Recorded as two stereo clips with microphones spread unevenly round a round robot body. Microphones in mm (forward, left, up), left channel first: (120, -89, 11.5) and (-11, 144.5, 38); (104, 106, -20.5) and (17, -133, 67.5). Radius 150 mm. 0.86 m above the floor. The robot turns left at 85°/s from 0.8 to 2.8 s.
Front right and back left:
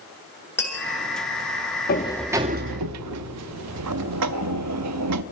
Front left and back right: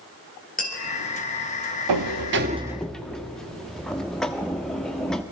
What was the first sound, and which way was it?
Tapping, 20° left.